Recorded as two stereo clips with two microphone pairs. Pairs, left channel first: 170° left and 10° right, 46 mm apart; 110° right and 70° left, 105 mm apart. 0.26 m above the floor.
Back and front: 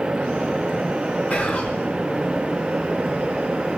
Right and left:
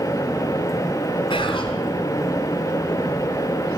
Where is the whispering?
135° right, 2.5 m.